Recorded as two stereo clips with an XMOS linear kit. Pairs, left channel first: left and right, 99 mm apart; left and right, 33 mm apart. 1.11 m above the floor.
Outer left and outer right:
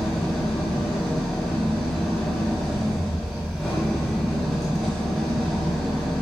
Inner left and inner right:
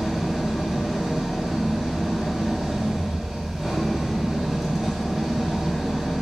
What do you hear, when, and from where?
0.0 s an engine running: centre (ahead or behind), 3.5 m